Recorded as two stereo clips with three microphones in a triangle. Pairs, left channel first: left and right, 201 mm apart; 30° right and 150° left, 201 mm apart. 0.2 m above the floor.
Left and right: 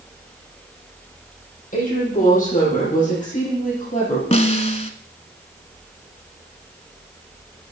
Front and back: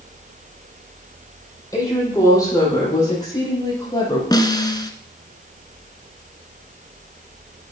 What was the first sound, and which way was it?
A woman speaking, 45° left.